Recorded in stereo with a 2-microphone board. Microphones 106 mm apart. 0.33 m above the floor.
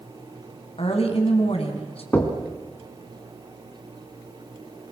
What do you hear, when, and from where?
0.8 s a woman speaking: 65° left (ahead or behind), 3.5 m
2.1 s knocking: 20° left (ahead or behind), 2.5 m